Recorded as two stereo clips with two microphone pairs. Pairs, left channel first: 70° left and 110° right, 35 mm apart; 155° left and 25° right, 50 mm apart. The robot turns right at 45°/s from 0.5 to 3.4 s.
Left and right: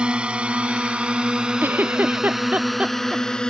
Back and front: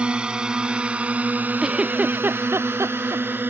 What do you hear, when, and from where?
0.0 s a drone: 80° right; by 3.5 s 5° left
1.6 s a giggle: 110° right; by 3.2 s 35° right